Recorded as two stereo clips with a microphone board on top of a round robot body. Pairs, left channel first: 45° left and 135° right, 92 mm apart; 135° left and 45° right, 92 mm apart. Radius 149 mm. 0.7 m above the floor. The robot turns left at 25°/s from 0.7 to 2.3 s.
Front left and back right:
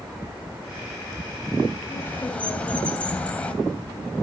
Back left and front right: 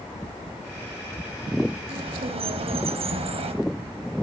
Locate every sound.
1.9 s a bird: 20° right, 2.5 m; by 3.5 s 30° right, 2.5 m